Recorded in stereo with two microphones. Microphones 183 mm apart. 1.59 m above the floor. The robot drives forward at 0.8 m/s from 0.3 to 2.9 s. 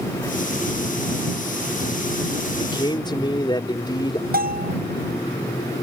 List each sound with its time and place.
2.6 s a man speaking: 25° left (ahead or behind)
4.3 s a bell: 55° right (ahead or behind)